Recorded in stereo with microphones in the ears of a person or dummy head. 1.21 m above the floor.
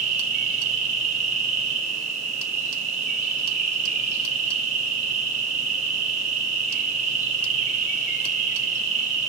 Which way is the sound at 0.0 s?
35° right (ahead or behind).